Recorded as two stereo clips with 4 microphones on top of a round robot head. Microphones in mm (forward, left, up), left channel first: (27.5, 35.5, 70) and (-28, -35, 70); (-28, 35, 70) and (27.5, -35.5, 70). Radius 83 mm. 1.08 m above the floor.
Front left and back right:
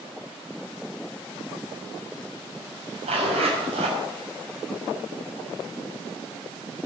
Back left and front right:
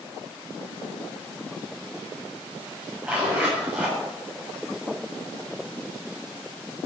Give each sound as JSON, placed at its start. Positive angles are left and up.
{"t": 3.0, "sound": "a zipper", "azimuth_deg": -125, "distance_m": 7.0}